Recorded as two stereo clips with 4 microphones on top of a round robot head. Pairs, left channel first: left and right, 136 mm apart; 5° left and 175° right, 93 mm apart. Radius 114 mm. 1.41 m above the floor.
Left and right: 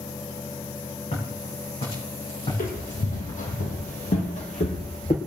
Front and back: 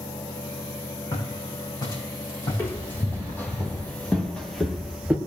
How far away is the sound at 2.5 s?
About 3.5 m.